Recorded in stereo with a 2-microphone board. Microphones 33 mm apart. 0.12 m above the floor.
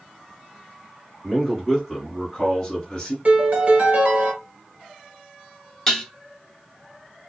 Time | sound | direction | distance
1.2 | a man speaking | 10° right (ahead or behind) | 1.6 m
3.2 | a piano | 40° right (ahead or behind) | 0.9 m
5.9 | dishes clattering | 10° left (ahead or behind) | 1.1 m